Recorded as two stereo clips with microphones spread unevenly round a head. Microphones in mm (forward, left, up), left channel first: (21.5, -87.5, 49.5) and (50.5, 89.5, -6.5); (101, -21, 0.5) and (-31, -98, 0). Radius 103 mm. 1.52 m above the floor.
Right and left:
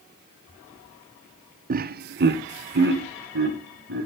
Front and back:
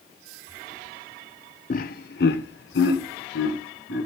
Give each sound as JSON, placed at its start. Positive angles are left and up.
{"t": 1.7, "sound": "laughter", "azimuth_deg": 70, "distance_m": 0.5}